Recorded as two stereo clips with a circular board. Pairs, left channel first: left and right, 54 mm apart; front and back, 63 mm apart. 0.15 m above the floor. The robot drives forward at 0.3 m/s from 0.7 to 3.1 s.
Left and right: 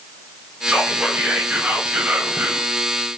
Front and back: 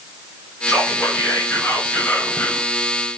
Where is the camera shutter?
No camera shutter in this recording.